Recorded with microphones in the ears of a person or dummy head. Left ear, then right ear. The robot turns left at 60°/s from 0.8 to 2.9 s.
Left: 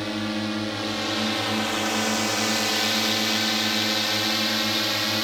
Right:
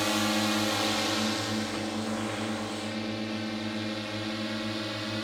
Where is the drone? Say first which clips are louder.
Right 1 dB; 25° right (ahead or behind); by 5.2 s 25° left (ahead or behind).